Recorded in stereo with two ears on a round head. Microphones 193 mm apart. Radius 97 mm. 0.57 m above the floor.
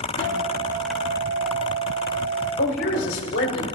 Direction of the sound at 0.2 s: 20° left (ahead or behind).